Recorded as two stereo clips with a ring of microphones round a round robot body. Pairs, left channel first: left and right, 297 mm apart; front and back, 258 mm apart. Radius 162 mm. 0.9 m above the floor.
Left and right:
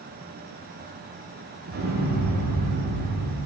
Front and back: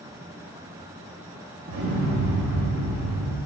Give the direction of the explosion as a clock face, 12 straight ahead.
5 o'clock.